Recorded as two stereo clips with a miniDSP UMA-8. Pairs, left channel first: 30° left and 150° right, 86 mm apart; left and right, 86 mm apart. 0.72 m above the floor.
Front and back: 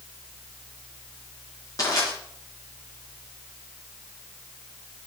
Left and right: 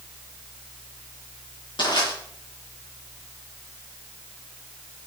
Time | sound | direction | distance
1.8 | crushing | 75° left | 5 m